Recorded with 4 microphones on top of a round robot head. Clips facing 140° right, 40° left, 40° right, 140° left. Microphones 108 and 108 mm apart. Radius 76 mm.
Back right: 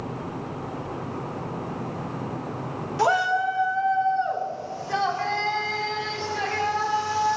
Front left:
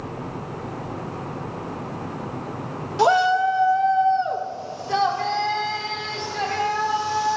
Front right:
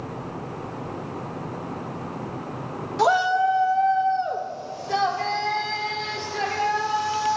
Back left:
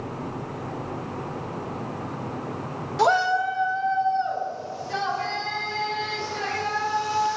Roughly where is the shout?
Ahead left.